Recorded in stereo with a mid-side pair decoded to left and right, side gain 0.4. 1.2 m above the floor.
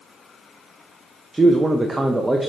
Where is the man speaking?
15° right, 0.8 m.